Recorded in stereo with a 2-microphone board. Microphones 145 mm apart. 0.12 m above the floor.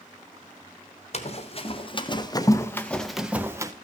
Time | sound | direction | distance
1.1 | running footsteps | 50° left (ahead or behind) | 1.3 m